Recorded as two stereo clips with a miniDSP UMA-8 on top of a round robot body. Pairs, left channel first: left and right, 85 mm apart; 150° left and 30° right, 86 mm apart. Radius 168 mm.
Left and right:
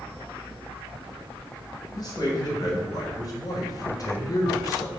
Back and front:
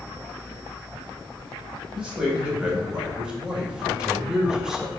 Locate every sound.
1.9 s a man speaking: 50° left, 3 m